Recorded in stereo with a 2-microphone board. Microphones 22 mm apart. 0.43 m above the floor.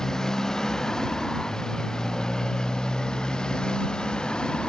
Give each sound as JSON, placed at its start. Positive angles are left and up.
{"t": 0.0, "sound": "a motorcycle", "side_deg": 25}